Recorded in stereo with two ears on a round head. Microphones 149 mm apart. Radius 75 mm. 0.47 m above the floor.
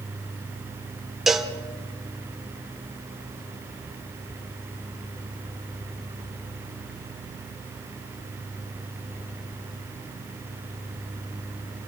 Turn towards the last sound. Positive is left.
turn(degrees=0)  # may be behind; listen again after turning